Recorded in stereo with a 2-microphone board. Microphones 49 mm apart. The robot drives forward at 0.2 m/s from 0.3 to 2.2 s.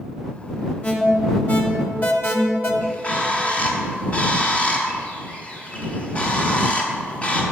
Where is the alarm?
35° left (ahead or behind), 1.2 m; by 2.7 s 40° left (ahead or behind), 1.0 m.